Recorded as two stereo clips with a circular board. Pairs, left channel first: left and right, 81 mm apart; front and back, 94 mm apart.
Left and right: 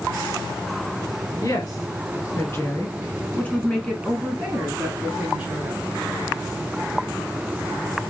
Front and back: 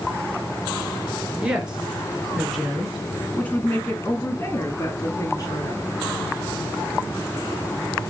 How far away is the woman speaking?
About 2 m.